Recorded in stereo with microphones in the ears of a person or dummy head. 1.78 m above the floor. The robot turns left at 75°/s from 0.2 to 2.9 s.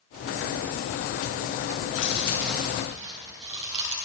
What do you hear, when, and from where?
1.8 s chewing: 50° left, 7 m; by 4.0 s 30° right, 7 m